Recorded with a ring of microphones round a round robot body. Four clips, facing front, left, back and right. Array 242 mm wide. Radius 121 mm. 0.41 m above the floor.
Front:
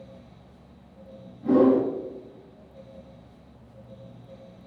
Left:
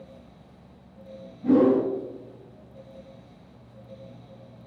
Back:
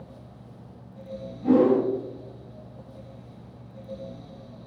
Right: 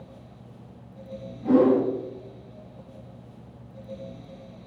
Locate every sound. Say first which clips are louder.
1.4 s a whoosh: even, even; 160° right, 2 m